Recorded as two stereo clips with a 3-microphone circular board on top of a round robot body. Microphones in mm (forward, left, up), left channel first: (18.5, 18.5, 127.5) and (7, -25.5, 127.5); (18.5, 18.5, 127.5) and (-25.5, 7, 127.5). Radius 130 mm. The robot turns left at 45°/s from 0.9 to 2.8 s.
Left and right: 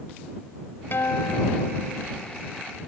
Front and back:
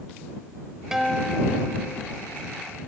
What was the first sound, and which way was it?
A guitar, 110° left.